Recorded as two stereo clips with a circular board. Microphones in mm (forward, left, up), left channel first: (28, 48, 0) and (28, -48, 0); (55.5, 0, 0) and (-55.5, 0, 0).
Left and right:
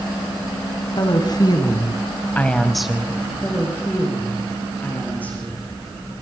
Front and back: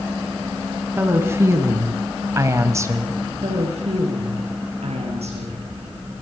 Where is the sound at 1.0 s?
115° left, 2.5 m; by 3.2 s 140° right, 1.7 m.